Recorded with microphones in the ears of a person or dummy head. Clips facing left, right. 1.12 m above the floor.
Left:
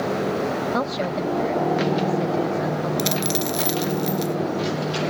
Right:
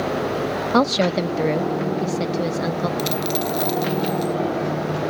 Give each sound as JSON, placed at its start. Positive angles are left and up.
{"t": 0.7, "sound": "a woman speaking", "side_deg": -70}
{"t": 3.0, "sound": "a dropped coin", "side_deg": 30}